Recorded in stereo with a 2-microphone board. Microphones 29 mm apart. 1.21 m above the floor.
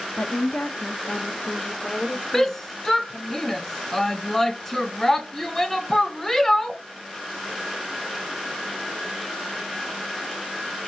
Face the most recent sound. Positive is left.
turn(degrees=10)  # may be behind; listen again after turning